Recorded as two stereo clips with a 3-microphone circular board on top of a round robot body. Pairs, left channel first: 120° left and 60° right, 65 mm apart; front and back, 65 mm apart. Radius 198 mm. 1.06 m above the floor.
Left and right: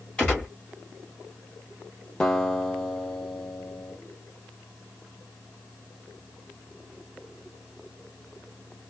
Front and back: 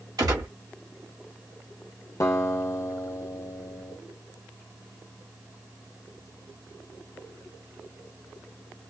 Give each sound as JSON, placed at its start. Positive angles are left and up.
{"t": 0.2, "sound": "a gunshot", "azimuth_deg": -165, "distance_m": 1.5}
{"t": 2.2, "sound": "a guitar", "azimuth_deg": 40, "distance_m": 0.8}